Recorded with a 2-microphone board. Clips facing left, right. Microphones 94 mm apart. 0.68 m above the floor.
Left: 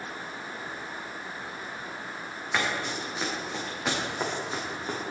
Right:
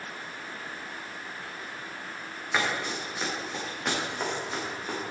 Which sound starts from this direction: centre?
Running footsteps, at 2.5 s.